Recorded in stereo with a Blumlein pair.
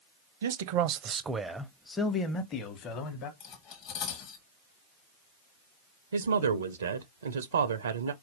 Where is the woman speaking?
70° right, 0.5 m.